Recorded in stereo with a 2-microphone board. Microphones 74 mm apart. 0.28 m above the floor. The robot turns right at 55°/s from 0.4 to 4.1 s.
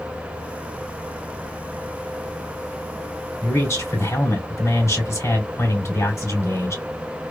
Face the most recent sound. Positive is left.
turn(degrees=85)